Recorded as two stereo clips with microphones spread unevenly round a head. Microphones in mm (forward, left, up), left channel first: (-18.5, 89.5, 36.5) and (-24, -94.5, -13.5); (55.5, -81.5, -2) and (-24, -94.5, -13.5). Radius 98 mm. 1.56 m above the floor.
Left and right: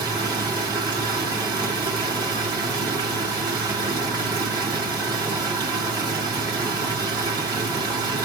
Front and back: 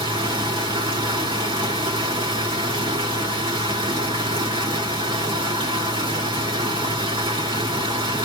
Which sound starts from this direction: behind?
Running water, at 0.0 s.